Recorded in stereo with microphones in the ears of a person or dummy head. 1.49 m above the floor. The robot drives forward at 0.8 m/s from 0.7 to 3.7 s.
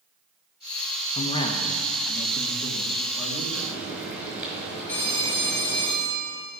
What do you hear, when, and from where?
1.1 s a man speaking: 30° left (ahead or behind), 0.9 m; by 3.5 s 10° left (ahead or behind), 2.5 m
3.5 s frying: 10° right (ahead or behind), 5 m
4.9 s a phone ringing: 10° left (ahead or behind), 1.2 m